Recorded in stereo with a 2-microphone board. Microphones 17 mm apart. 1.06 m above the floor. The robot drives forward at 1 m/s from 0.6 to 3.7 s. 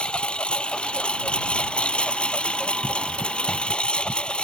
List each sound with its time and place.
0.0 s a lawn mower: 70° left (ahead or behind); by 4.5 s 75° left (ahead or behind)